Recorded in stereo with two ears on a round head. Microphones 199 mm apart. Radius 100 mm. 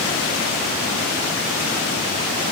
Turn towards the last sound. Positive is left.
No sound to turn to.